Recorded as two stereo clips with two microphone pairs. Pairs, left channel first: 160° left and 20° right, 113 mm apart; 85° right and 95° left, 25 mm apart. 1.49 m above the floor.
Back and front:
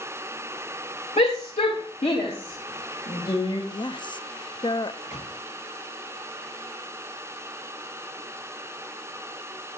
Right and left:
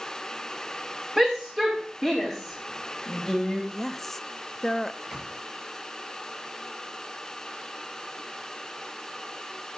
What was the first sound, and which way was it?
A shout, 170° left.